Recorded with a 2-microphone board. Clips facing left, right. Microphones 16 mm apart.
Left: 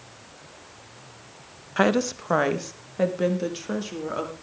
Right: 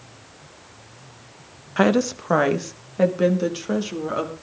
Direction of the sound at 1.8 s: 5° right (ahead or behind).